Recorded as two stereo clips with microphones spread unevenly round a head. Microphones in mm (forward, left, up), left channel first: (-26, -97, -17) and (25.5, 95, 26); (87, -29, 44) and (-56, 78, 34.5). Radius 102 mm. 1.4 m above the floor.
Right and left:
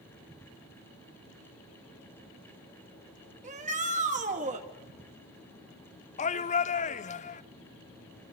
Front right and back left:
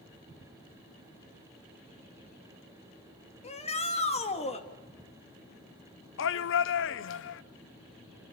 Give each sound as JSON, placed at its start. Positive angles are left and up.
{"t": 3.4, "sound": "a shout", "azimuth_deg": 20, "distance_m": 2.5}
{"t": 6.2, "sound": "a shout", "azimuth_deg": -50, "distance_m": 0.8}